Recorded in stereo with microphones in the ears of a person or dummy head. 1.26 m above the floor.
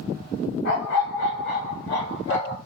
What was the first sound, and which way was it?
A dog barking, 60° left (ahead or behind).